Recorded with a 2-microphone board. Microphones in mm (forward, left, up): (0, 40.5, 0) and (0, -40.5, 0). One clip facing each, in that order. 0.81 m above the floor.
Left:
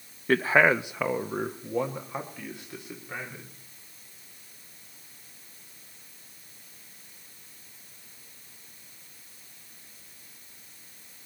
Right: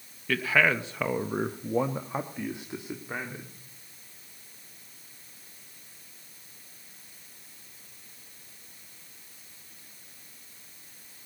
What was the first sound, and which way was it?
A man speaking, 35° left (ahead or behind).